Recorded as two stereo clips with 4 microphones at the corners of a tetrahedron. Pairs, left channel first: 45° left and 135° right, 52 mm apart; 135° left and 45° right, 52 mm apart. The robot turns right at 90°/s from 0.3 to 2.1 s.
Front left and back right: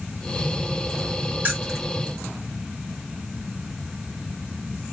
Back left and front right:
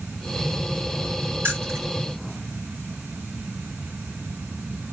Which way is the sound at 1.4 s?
80° right.